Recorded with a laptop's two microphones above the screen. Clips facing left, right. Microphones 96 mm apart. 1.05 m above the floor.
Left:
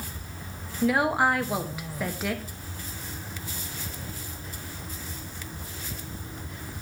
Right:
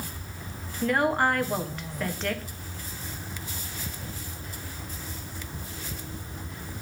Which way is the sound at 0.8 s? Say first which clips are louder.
Left 1 dB; 5° left (ahead or behind).